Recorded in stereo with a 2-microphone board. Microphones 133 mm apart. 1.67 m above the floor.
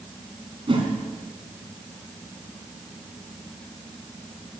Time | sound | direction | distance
0.7 | a whoosh | 40° right (ahead or behind) | 2.5 m